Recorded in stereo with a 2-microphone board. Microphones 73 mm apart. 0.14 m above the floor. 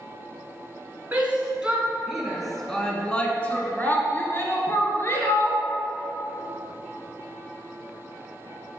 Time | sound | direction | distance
1.1 | a shout | 25° right (ahead or behind) | 1.4 m